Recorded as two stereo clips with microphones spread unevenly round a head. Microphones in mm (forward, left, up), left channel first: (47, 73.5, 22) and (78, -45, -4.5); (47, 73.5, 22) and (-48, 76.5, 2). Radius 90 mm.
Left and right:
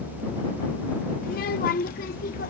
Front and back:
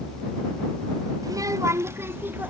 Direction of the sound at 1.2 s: 135° left.